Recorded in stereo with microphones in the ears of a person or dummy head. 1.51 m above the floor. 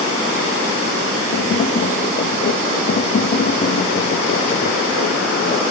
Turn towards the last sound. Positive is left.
turn(degrees=45)  # may be behind; listen again after turning